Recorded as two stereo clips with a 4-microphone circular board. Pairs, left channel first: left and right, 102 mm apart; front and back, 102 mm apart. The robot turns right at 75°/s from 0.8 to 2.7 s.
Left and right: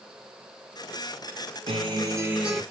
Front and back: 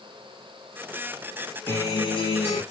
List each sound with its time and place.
1.7 s a guitar: 70° right, 2.5 m; by 2.6 s straight ahead, 2.5 m